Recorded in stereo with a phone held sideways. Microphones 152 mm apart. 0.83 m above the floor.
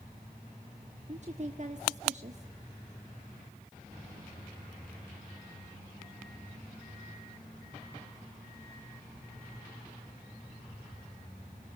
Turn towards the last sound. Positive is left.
turn(degrees=-50)  # may be behind; listen again after turning